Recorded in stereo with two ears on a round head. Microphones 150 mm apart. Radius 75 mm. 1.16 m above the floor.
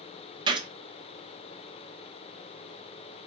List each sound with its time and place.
0.5 s a gunshot: 30° right (ahead or behind), 0.7 m